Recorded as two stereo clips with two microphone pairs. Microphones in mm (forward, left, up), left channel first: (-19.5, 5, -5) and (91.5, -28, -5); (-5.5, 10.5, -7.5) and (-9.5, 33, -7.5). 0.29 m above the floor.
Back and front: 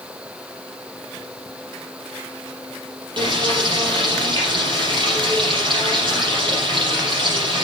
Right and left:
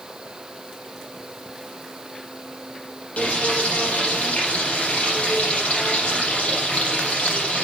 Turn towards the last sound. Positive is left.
turn(degrees=-60)